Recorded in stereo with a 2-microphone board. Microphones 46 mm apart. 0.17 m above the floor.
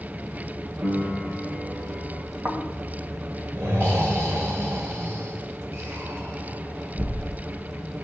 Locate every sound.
0.8 s a piano: 75° right (ahead or behind), 2.5 m
2.5 s snoring: 60° right (ahead or behind), 2.5 m